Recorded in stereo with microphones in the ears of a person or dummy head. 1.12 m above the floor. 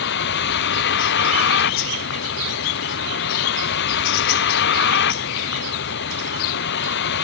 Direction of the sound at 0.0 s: 65° left (ahead or behind).